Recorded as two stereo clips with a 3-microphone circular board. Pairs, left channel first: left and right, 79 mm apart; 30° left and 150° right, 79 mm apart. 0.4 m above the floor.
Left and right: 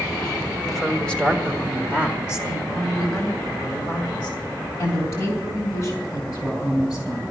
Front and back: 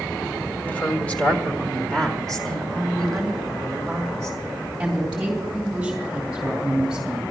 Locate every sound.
0.7 s a woman speaking: 5° left, 1.4 m; by 7.2 s 125° left, 4.5 m